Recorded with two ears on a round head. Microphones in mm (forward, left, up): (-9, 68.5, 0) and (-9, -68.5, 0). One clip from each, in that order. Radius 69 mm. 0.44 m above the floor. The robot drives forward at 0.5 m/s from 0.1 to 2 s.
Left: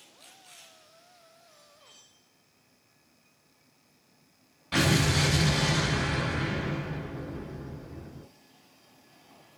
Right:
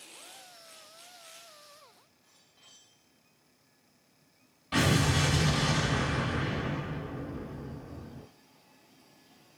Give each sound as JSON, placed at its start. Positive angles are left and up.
{"t": 4.7, "sound": "an explosion", "side_deg": 10, "distance_m": 1.8}